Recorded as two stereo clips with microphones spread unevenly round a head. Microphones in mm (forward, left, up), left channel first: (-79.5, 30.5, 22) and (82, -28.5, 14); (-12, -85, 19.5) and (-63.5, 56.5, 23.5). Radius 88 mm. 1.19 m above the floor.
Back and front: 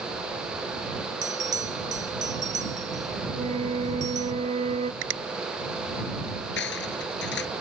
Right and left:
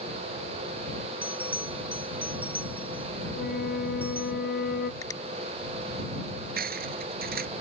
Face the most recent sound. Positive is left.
turn(degrees=130)